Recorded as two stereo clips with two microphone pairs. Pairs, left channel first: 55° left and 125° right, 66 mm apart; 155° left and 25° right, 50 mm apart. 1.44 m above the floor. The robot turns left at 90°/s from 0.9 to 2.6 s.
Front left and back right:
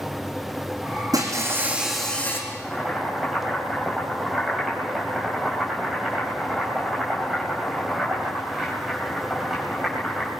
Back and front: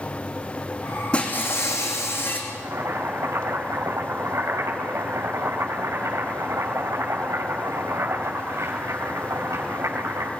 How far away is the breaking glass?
About 4.5 m.